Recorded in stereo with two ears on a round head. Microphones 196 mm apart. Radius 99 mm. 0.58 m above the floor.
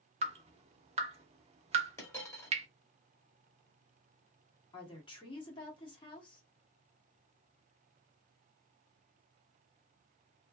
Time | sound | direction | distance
0.2 | dripping | 30° right (ahead or behind) | 0.7 m
2.0 | a dropped coin | 15° left (ahead or behind) | 1.1 m
4.7 | a woman speaking | 25° left (ahead or behind) | 1.2 m